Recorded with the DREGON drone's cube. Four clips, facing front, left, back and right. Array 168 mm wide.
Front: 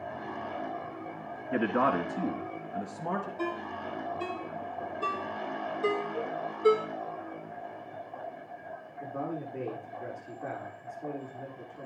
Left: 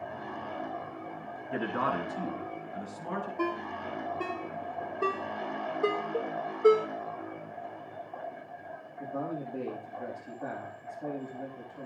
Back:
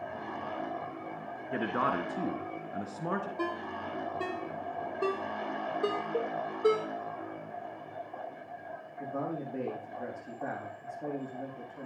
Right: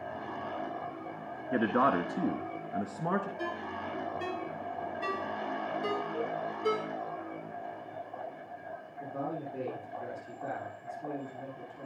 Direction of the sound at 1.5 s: 55° right.